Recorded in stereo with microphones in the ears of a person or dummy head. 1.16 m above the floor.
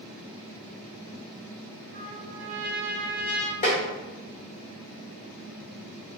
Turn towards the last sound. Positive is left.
turn(degrees=25)  # may be behind; listen again after turning